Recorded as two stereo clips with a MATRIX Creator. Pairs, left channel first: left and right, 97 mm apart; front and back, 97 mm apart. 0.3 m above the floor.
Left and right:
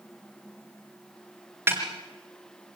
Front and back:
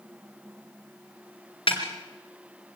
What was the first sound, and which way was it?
A snare drum, 25° right.